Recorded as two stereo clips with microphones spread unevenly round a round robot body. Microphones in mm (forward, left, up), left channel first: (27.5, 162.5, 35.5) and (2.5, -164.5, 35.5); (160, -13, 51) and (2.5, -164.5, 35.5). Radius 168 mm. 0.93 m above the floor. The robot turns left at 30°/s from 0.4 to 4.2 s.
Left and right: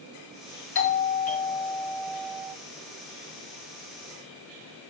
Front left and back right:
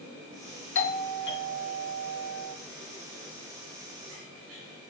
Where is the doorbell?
40° left, 2.5 m; by 2.5 s 15° right, 2.5 m.